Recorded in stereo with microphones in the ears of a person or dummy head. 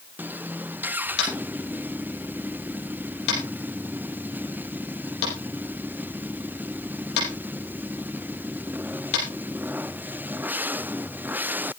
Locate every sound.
1.2 s tapping: 70° left (ahead or behind), 6 m